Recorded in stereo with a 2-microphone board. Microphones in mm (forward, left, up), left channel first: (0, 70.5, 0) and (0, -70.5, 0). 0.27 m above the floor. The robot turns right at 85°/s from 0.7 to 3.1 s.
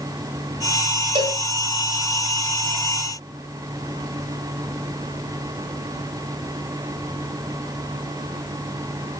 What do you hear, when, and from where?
1.1 s a cowbell: 40° right (ahead or behind), 1.3 m; by 1.4 s 25° right (ahead or behind), 1.3 m